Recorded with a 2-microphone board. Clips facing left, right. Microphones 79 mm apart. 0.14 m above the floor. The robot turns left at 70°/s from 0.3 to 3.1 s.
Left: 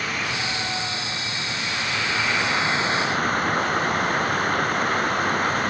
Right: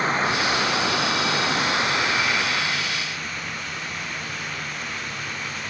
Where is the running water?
35° right; by 5.7 s 125° left.